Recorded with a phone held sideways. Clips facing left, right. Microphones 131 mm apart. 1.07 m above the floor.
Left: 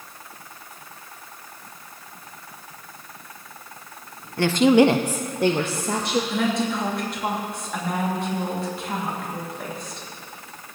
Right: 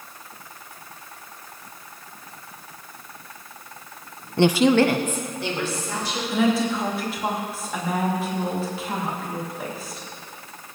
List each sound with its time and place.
4.4 s a woman speaking: 25° right (ahead or behind), 0.5 m; by 6.2 s 60° left (ahead or behind), 1.7 m
6.3 s a woman speaking: 5° right (ahead or behind), 2 m